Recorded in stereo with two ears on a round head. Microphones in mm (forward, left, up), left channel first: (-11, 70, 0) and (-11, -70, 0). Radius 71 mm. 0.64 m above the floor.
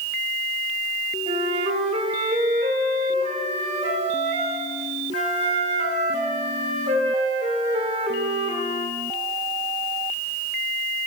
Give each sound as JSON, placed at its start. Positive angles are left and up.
{"t": 1.3, "sound": "a flute", "side_deg": -45, "distance_m": 1.8}